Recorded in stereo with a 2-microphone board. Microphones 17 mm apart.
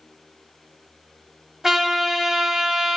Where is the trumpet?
20° right (ahead or behind), 0.7 m.